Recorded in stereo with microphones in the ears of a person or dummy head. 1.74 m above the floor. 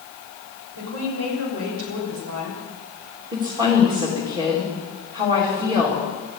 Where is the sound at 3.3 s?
25° right (ahead or behind), 3.5 m.